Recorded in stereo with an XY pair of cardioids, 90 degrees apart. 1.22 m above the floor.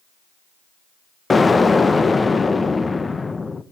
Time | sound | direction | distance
1.3 | an explosion | 30° left | 1.0 m